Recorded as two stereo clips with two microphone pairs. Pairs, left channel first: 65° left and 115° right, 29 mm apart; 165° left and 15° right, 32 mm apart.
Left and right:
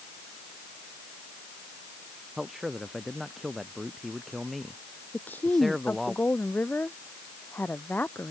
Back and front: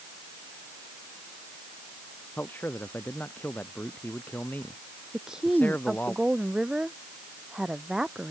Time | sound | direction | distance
2.4 | a man speaking | 160° left | ?
5.1 | a woman speaking | 55° left | ?